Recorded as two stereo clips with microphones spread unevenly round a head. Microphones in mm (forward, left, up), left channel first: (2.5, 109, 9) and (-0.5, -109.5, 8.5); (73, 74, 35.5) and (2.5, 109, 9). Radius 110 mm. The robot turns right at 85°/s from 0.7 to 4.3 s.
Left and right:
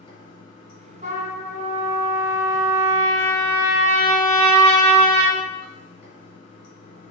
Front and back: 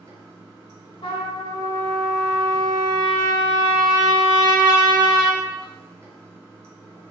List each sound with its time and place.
0.0 s running water: 145° left, 1.3 m; by 7.1 s 90° left, 1.3 m
1.0 s a trumpet: 30° right, 1.2 m; by 5.4 s 115° right, 1.2 m